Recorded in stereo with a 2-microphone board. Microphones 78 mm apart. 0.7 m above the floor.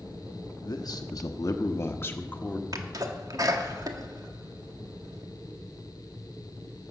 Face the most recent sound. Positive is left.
turn(degrees=-50)  # may be behind; listen again after turning